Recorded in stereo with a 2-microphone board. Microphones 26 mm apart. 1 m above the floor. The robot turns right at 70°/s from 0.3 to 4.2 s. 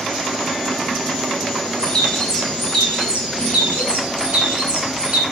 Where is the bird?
130° left, 4 m; by 5.2 s 60° right, 4 m.